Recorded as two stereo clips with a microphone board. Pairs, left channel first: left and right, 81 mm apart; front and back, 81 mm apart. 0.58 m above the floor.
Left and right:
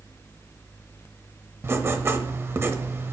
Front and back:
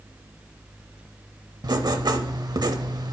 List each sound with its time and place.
1.6 s writing: 145° right, 0.6 m